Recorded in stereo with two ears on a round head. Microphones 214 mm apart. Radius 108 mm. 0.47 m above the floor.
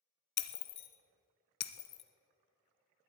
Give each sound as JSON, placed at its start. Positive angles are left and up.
{"t": 0.4, "sound": "breaking glass", "side_deg": 45, "distance_m": 0.9}